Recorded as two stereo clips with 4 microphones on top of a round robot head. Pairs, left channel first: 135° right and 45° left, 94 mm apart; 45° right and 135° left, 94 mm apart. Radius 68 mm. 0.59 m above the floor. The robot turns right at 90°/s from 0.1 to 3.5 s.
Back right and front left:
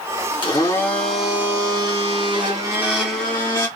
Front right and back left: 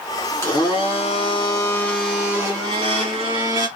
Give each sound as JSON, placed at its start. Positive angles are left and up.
{"t": 0.4, "sound": "a blender", "azimuth_deg": -110, "distance_m": 2.0}